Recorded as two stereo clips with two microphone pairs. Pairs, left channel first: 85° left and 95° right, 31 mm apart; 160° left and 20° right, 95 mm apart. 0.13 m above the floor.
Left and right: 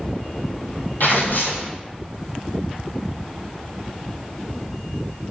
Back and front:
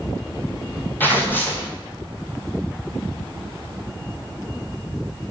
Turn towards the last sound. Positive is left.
turn(degrees=95)